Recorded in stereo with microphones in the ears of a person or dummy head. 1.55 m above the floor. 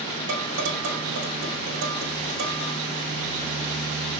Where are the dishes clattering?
75° right (ahead or behind), 4 m.